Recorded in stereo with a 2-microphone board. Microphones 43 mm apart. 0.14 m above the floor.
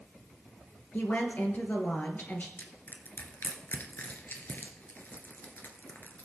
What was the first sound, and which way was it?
A woman speaking, 45° left (ahead or behind).